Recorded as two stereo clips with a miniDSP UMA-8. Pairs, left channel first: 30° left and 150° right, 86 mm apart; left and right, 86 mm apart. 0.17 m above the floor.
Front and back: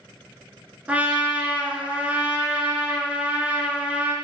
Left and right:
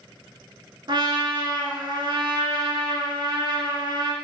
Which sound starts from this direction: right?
A trumpet, at 0.9 s.